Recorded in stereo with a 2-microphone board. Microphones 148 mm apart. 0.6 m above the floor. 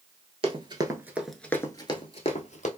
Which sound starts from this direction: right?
Running footsteps, at 0.4 s.